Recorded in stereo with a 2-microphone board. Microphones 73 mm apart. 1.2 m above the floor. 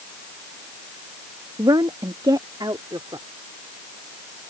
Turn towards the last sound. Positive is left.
turn(degrees=-75)  # may be behind; listen again after turning